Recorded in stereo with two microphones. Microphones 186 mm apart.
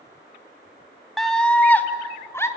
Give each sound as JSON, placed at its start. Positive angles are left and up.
{"t": 1.2, "sound": "a scream", "side_deg": 0, "distance_m": 1.6}